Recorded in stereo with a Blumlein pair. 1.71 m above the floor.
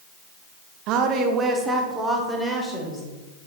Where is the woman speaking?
40° right, 0.9 m; by 3.0 s straight ahead, 2 m.